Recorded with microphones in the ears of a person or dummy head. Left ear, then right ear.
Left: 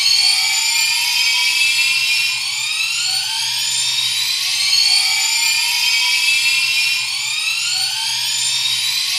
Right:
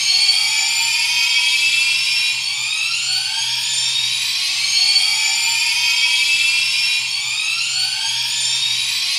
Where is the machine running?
20° left (ahead or behind), 3 m.